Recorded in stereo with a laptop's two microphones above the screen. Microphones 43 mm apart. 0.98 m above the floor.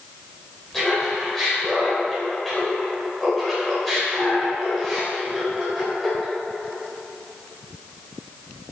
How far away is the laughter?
About 3.5 m.